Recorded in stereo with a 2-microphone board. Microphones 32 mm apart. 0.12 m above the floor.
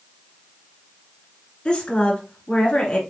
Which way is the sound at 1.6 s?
30° left (ahead or behind).